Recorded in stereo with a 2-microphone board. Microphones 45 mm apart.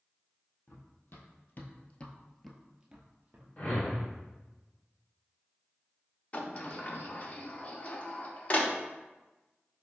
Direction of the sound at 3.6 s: 35° left (ahead or behind).